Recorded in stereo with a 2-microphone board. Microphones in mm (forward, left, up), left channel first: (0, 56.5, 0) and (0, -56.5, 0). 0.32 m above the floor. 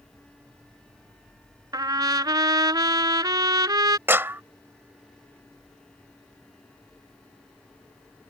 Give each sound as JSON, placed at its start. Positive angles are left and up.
{"t": 1.7, "sound": "a trumpet", "side_deg": -35}
{"t": 4.1, "sound": "a clap", "side_deg": -20}